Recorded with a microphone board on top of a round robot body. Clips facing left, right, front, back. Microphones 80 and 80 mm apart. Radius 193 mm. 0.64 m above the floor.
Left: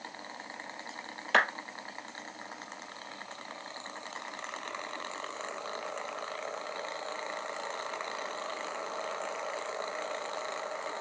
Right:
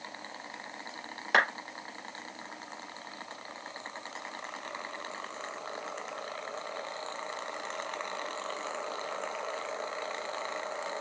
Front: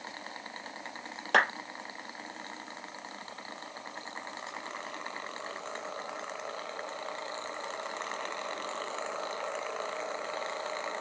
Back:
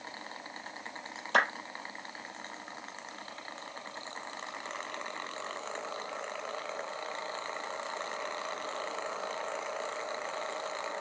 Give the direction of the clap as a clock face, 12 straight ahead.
1 o'clock.